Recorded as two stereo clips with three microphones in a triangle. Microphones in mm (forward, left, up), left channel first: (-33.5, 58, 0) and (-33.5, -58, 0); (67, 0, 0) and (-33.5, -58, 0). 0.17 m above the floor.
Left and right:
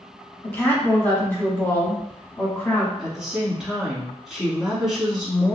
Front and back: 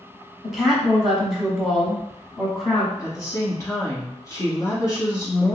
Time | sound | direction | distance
0.4 | a woman speaking | 125° left | 1.2 m
3.0 | a woman speaking | 5° right | 1.2 m